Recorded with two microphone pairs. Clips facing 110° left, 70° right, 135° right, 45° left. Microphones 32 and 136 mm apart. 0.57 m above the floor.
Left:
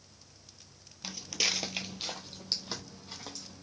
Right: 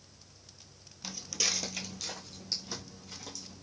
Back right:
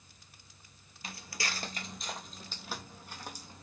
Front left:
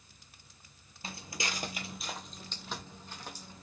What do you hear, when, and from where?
1.0 s footsteps: 45° left, 0.6 m; by 3.6 s 150° left, 1.4 m